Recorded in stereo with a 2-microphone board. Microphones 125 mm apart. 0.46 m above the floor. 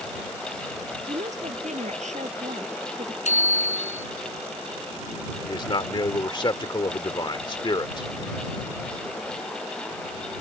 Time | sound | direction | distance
1.1 | a woman speaking | 70° right (ahead or behind) | ?
3.2 | a bicycle bell | 75° left (ahead or behind) | ?
5.5 | a man speaking | 40° left (ahead or behind) | ?